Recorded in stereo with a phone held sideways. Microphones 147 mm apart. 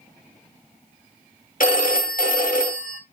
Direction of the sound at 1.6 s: 65° left (ahead or behind).